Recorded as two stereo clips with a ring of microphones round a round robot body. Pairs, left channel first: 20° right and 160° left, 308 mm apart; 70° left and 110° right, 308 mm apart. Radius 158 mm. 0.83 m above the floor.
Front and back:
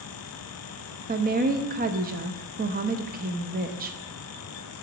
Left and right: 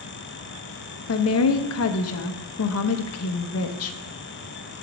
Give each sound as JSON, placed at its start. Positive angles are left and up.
{"t": 1.1, "sound": "a woman speaking", "azimuth_deg": 100, "distance_m": 0.7}